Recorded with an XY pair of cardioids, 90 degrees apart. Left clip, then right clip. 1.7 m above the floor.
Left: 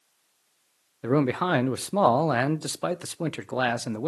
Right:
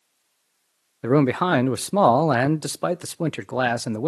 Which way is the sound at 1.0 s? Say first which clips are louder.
Right 4 dB; 40° right.